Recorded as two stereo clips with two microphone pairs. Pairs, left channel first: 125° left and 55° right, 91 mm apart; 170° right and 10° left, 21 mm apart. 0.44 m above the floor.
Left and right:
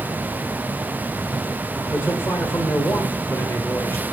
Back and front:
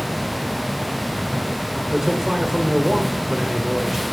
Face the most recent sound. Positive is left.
turn(degrees=70)